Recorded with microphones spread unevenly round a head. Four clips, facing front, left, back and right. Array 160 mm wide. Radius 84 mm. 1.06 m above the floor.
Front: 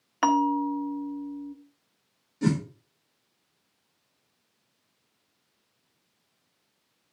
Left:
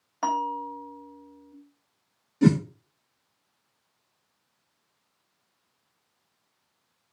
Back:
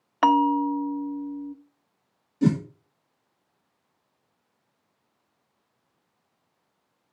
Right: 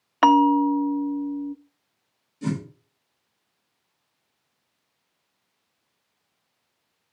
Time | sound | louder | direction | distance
0.2 | a bell | right 12 dB, back 3 dB | 95° right | 0.6 m
2.4 | a whoosh | left 8 dB, back 3 dB | 120° left | 1.3 m